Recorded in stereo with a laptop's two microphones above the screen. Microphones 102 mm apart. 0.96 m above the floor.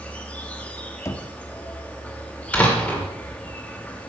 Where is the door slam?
15° left (ahead or behind), 2 m.